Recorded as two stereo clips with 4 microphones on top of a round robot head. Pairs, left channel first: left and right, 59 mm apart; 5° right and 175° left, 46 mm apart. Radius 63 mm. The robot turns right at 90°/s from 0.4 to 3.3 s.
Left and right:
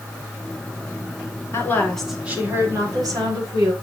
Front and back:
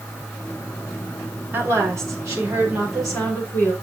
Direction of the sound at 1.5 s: 135° left.